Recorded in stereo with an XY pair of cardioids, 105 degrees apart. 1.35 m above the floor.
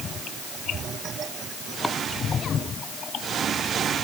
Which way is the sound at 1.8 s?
5° left.